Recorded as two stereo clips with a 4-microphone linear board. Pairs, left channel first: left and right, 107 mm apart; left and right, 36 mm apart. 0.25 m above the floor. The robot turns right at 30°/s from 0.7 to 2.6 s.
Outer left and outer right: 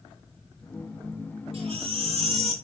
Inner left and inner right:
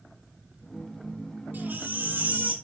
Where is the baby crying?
110° right, 6 m; by 2.5 s 80° right, 6 m.